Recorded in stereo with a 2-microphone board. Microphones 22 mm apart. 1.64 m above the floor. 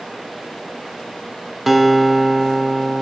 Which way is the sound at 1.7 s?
5° right (ahead or behind).